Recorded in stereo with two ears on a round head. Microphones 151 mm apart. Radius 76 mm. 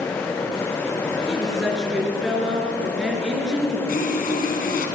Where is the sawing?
55° left (ahead or behind), 4.5 m.